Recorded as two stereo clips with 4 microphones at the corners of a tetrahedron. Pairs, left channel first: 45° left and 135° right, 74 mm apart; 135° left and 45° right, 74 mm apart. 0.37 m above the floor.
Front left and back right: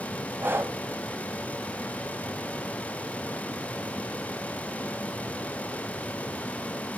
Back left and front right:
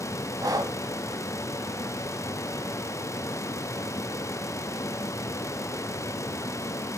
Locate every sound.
0.4 s breathing: 80° right, 1.0 m